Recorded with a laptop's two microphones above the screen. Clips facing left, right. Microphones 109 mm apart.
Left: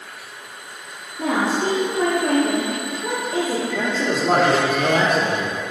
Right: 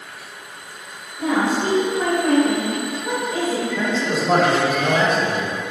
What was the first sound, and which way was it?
A woman speaking, 50° left (ahead or behind).